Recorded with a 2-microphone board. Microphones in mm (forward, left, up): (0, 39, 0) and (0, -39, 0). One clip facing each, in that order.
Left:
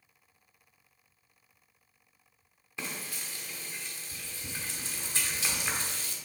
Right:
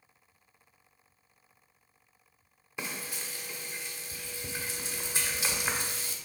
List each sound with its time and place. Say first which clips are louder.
2.8 s frying: right 1 dB; 15° right (ahead or behind), 1.3 m